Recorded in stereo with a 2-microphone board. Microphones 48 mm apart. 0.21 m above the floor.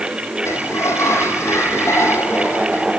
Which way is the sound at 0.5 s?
70° left (ahead or behind).